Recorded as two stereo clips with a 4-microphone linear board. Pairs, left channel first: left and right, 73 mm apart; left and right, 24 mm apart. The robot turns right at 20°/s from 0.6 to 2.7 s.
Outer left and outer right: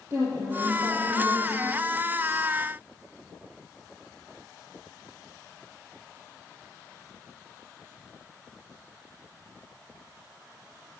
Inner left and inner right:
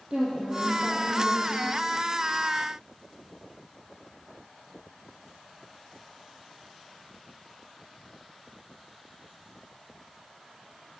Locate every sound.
0.1 s a woman speaking: 35° right (ahead or behind), 3 m; by 1.8 s 15° right (ahead or behind), 3 m